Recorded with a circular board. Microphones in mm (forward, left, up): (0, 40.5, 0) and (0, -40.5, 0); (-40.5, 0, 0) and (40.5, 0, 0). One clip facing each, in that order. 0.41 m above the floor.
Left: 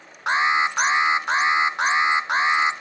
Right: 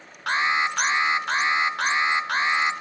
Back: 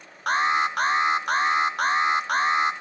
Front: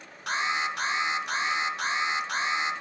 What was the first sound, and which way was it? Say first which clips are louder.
An alarm: left 3 dB, back 7 dB; 155° left.